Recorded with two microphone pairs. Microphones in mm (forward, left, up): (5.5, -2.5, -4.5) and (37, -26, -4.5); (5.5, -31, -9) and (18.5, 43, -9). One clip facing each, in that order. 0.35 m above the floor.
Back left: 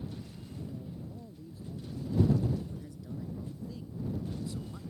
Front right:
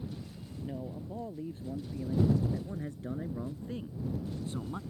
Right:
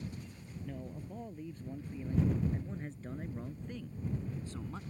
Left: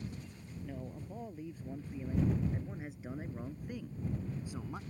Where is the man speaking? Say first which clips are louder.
Front right 7 dB, even; straight ahead; by 4.8 s 5° left.